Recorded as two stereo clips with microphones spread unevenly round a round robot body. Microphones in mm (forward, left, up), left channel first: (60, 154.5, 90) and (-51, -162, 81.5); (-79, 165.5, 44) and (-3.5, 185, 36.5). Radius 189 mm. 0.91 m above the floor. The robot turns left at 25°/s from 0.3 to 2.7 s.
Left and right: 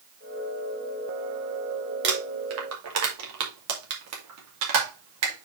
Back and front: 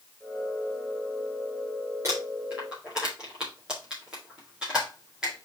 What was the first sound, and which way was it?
Crumpling, 50° right.